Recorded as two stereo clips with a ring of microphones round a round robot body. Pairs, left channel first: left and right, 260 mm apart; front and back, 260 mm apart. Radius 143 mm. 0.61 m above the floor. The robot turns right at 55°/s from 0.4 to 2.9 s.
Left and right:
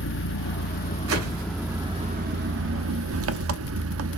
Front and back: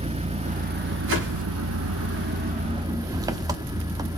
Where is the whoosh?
135° right, 4 m; by 1.4 s 115° right, 4 m.